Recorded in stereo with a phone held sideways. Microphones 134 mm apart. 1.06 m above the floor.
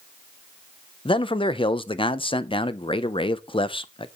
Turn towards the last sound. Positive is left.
turn(degrees=40)  # may be behind; listen again after turning